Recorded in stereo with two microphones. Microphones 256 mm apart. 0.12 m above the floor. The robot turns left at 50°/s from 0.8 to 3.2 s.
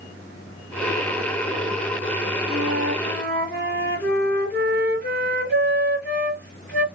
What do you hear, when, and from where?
2.5 s a flute: 70° right, 1.9 m; by 6.8 s 105° right, 1.9 m